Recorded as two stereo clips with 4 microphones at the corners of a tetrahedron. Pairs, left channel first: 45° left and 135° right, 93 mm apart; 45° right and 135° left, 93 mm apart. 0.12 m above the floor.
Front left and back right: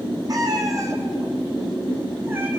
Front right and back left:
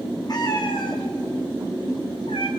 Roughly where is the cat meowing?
Right.